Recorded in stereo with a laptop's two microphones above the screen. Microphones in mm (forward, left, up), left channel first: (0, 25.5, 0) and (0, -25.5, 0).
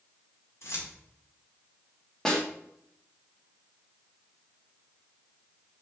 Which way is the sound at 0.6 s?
65° left (ahead or behind).